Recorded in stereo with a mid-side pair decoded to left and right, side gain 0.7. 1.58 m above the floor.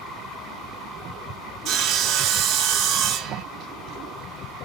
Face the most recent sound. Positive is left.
turn(degrees=-55)